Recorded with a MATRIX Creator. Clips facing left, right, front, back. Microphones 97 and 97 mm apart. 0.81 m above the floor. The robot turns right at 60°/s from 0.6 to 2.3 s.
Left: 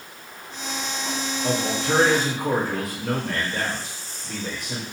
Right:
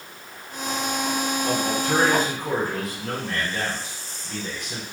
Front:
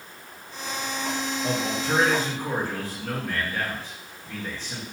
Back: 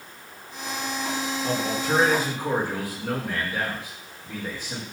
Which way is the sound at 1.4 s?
65° left.